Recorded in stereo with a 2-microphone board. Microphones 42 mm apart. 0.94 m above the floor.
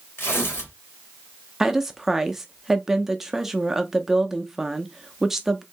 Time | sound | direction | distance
0.2 | tearing paper | 70° left (ahead or behind) | 1.6 m
1.6 | a woman speaking | 10° right (ahead or behind) | 0.5 m